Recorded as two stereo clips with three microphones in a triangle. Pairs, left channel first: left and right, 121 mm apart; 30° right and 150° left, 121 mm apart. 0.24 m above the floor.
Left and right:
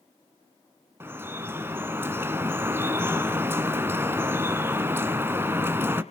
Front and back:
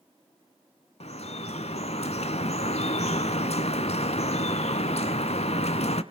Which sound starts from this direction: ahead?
Dripping, at 1.0 s.